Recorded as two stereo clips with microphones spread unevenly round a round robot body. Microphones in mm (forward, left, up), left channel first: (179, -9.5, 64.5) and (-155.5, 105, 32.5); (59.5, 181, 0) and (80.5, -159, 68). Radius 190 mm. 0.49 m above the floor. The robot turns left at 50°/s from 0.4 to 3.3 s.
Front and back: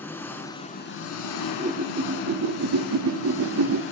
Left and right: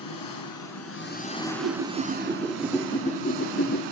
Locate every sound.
0.0 s an engine running: 65° left, 2 m; by 3.9 s 80° right, 2 m
1.4 s a whoosh: 125° right, 1.0 m; by 3.8 s 140° left, 1.0 m